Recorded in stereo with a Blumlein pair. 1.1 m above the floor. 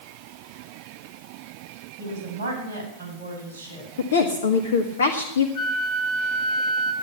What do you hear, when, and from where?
2.0 s a woman speaking: 55° right, 6 m; by 3.9 s 60° right, 8.5 m
4.0 s a woman speaking: 65° left, 1.4 m
5.5 s a flute: 40° left, 3.5 m